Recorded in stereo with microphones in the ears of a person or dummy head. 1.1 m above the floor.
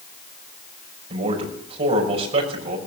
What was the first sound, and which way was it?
A man speaking, 35° right (ahead or behind).